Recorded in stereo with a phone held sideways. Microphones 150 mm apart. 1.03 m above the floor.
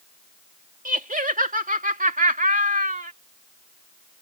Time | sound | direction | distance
0.8 | laughter | 65° right (ahead or behind) | ?